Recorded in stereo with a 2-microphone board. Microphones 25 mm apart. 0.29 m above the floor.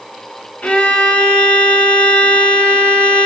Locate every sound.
0.6 s a violin: 75° left (ahead or behind), 1.2 m